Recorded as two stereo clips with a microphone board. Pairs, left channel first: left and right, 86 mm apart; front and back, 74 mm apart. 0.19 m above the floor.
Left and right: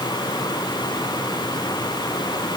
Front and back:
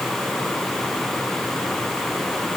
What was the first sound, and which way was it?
Only background noise.